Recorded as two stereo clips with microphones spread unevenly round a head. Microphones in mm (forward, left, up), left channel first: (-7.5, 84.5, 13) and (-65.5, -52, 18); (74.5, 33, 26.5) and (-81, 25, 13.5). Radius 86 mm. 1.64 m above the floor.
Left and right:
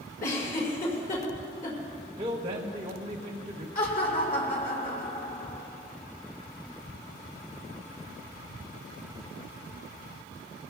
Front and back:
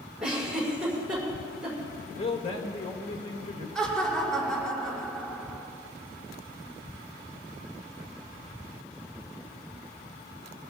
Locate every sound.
0.2 s a giggle: 100° left, 6.5 m
2.2 s a man speaking: 55° right, 1.7 m
3.8 s laughter: 90° left, 5.5 m